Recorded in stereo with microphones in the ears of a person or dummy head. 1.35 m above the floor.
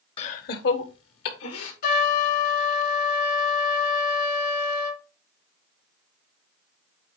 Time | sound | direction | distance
0.2 | laughter | 30° left (ahead or behind) | 0.8 m
1.8 | a trumpet | 55° left (ahead or behind) | 1.4 m